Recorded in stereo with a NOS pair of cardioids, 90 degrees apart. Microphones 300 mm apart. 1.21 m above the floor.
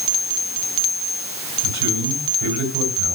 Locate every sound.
1.6 s a man speaking: 65° right, 4.5 m